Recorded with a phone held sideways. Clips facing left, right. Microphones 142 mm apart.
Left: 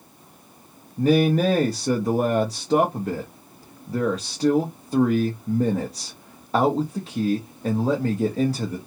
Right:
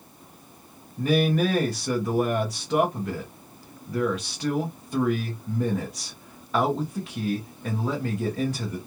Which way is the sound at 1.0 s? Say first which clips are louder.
Left 4 dB; 35° left (ahead or behind).